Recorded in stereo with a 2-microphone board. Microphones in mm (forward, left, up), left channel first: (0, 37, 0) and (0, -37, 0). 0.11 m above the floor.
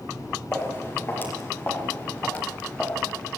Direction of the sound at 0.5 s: 30° left (ahead or behind).